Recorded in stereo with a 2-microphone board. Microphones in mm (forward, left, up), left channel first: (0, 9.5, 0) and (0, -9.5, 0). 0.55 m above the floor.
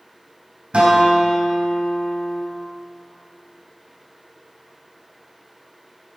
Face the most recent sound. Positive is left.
turn(degrees=-70)  # may be behind; listen again after turning